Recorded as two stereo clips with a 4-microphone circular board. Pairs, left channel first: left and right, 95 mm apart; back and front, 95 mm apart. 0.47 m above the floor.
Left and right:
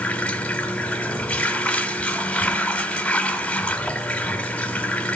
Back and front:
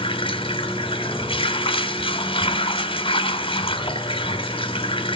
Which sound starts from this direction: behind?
Running water, at 0.0 s.